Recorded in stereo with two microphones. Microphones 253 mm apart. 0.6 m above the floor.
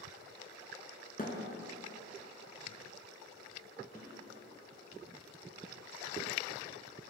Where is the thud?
35° left (ahead or behind), 1.2 m.